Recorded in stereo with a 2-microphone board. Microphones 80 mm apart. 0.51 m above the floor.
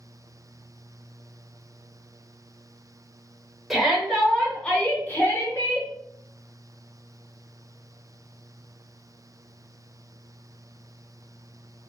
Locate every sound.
3.7 s a shout: centre (ahead or behind), 1.5 m; by 5.9 s 45° left (ahead or behind), 1.2 m